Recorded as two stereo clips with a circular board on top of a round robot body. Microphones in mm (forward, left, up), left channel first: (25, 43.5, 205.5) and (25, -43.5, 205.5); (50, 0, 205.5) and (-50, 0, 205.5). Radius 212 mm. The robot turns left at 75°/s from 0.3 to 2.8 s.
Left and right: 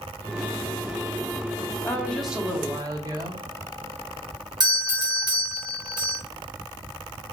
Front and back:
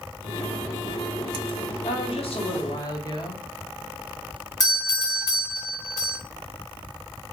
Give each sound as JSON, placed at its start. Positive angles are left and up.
{"t": 1.8, "sound": "a woman speaking", "azimuth_deg": 30, "distance_m": 1.0}
{"t": 4.6, "sound": "a doorbell", "azimuth_deg": -55, "distance_m": 1.4}